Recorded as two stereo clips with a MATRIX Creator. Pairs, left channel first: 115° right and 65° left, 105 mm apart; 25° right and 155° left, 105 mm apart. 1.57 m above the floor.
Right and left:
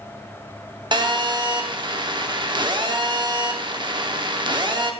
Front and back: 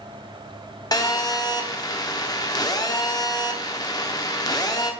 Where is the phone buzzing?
30° left, 0.7 m.